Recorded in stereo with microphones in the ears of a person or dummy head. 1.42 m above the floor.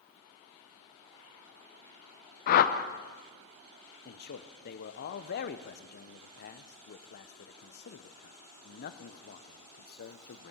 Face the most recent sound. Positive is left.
turn(degrees=55)  # may be behind; listen again after turning